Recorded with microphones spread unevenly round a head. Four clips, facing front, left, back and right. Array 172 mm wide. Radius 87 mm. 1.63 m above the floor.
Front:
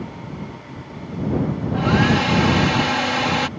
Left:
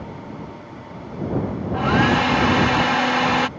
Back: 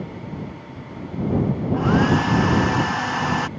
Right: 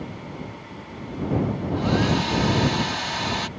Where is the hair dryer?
75° left.